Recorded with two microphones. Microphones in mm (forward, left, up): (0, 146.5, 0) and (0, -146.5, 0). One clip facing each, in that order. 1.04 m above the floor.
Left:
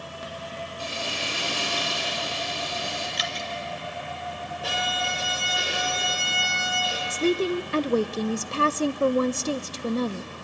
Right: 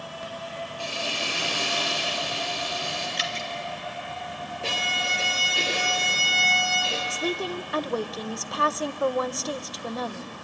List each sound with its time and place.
0.8 s frying: 20° left (ahead or behind), 9 m
3.2 s dripping: 30° right (ahead or behind), 2 m
4.6 s a violin: 30° right (ahead or behind), 4.5 m
7.1 s a woman speaking: 30° left (ahead or behind), 0.5 m